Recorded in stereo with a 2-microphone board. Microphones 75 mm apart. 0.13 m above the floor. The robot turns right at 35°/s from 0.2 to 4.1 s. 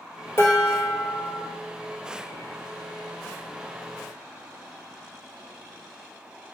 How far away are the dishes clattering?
About 1.8 m.